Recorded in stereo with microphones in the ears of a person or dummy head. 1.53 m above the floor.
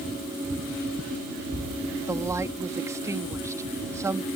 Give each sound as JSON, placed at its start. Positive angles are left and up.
{"t": 2.1, "sound": "a woman speaking", "side_deg": -15}